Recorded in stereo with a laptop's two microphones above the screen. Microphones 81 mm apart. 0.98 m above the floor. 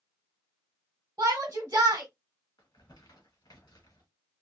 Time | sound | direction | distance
1.2 | a shout | 35° right (ahead or behind) | 1.0 m
2.6 | crumpling | 55° left (ahead or behind) | 1.6 m